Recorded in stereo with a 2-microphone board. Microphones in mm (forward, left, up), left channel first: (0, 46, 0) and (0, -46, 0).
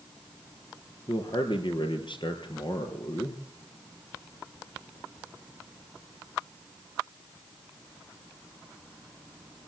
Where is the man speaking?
60° left (ahead or behind), 3.5 m.